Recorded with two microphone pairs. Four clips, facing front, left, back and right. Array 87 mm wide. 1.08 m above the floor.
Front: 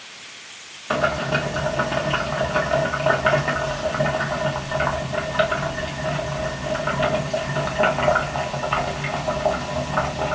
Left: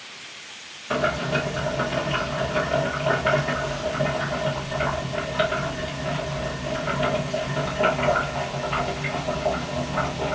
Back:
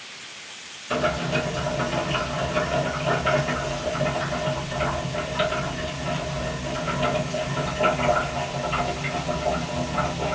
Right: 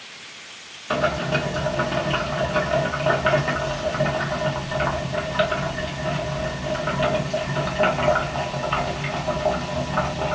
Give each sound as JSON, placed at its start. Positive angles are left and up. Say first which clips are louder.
{"t": 0.9, "sound": "boiling", "louder": "right 1 dB, front 3 dB", "azimuth_deg": -15, "distance_m": 0.9}